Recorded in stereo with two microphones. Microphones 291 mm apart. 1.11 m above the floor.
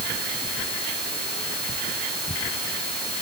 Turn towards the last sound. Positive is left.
No sound to turn to.